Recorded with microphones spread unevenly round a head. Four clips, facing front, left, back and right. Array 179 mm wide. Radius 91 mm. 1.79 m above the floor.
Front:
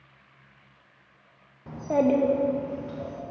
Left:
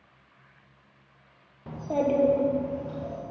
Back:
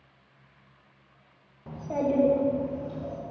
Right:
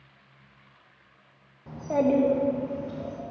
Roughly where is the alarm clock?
No alarm clock in this recording.